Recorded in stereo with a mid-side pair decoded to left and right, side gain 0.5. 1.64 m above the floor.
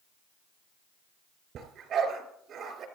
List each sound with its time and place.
1.6 s a dog barking: 65° right, 3.5 m